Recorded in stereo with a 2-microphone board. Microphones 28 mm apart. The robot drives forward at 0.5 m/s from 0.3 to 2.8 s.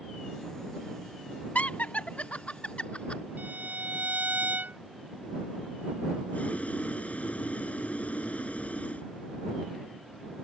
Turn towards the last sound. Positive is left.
turn(degrees=45)  # may be behind; listen again after turning